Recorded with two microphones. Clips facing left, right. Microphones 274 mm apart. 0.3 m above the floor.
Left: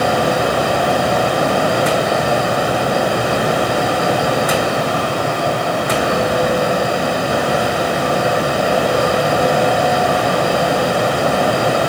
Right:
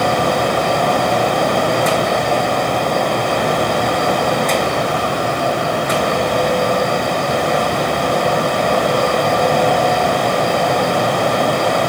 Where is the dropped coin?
I don't hear a dropped coin.